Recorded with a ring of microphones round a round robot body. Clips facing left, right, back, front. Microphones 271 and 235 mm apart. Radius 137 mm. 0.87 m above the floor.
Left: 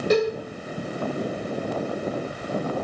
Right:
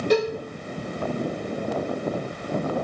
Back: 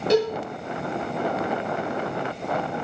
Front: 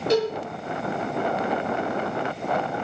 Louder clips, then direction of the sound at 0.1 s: Left 1 dB, back 2 dB; 170° left.